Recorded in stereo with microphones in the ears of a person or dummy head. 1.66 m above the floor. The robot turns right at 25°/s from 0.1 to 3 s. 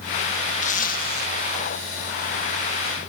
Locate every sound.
0.6 s a zipper: 40° left (ahead or behind); by 1.3 s 55° left (ahead or behind)